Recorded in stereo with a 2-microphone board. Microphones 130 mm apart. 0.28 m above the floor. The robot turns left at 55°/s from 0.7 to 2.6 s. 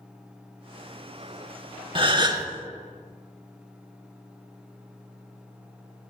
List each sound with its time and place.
1.9 s a gasp: 40° right (ahead or behind), 0.6 m; by 2.5 s 25° right (ahead or behind), 0.6 m